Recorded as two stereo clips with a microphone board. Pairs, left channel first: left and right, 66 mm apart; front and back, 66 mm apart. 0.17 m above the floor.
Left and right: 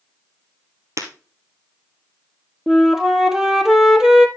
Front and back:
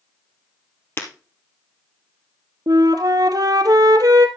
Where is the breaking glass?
55° right, 1.9 m.